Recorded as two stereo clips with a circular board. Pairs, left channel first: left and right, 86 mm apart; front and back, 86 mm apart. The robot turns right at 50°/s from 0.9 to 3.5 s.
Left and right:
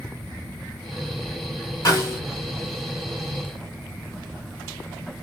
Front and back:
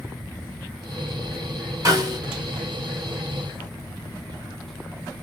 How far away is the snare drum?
About 1.5 m.